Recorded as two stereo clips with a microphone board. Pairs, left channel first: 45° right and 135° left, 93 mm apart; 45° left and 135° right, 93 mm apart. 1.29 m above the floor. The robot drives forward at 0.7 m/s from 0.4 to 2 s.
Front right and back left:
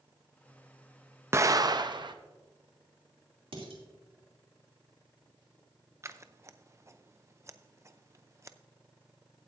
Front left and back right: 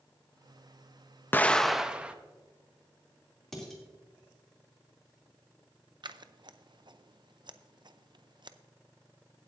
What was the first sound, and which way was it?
An explosion, 95° left.